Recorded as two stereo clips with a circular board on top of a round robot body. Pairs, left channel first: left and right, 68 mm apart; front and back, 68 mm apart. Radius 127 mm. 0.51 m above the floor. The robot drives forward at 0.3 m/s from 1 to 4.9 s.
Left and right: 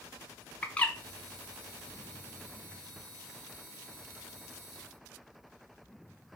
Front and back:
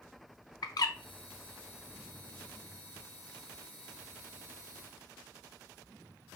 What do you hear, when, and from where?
0.6 s a bird: 20° left, 0.5 m